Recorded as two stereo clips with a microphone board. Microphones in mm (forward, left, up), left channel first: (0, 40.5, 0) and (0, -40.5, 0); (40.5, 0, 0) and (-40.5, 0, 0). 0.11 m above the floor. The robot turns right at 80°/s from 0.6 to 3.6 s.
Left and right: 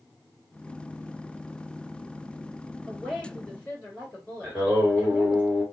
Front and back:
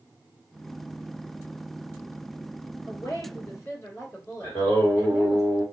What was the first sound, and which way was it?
A woman speaking, 35° right.